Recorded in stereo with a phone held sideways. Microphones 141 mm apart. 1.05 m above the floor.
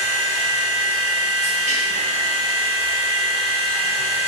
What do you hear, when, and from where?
0.0 s a machine running: 50° right (ahead or behind), 1.2 m